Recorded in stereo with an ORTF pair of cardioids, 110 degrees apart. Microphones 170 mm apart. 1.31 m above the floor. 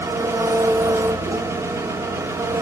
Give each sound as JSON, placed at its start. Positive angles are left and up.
{"t": 0.0, "sound": "an engine running", "azimuth_deg": -15, "distance_m": 1.8}